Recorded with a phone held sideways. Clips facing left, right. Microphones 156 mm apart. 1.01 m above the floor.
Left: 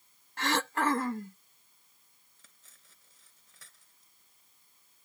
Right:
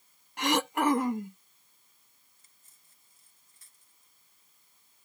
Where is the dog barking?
I don't hear a dog barking.